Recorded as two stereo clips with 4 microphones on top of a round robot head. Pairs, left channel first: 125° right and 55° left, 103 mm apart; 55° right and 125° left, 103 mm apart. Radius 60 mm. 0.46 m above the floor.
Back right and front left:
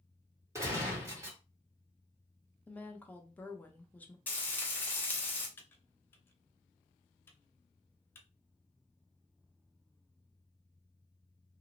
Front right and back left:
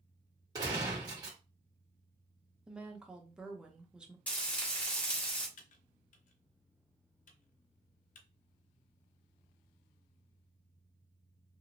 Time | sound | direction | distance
0.6 | a gunshot | 100° left | 1.7 m
2.7 | a woman speaking | 170° right | 0.7 m
4.3 | frying | 95° right | 1.4 m
5.6 | typing on a keyboard | 55° right | 0.6 m